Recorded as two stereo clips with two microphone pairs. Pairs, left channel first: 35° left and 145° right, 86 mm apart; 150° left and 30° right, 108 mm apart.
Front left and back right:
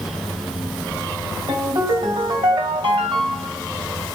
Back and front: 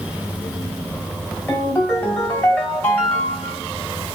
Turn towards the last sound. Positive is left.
turn(degrees=-140)